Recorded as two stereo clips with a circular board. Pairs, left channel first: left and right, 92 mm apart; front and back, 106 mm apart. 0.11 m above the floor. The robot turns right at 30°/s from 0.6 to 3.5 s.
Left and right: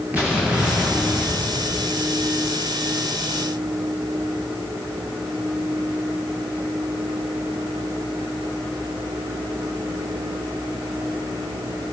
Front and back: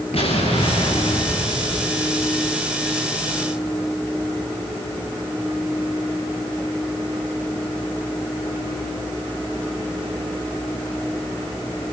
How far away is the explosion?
About 7 m.